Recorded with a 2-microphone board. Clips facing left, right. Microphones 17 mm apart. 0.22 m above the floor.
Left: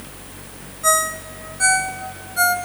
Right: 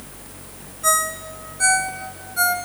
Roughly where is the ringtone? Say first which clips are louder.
Left 2 dB; centre.